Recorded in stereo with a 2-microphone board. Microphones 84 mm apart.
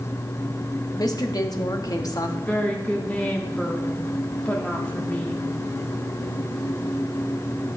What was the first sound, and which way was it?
A woman speaking, 50° left (ahead or behind).